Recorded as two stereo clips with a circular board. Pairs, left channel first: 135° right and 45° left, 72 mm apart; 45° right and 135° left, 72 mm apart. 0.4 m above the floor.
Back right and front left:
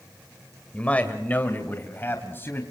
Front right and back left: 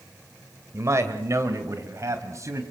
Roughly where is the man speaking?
Behind.